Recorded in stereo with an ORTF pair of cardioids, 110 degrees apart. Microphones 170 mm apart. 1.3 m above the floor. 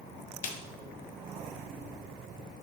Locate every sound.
0.4 s a snare drum: 55° left, 0.6 m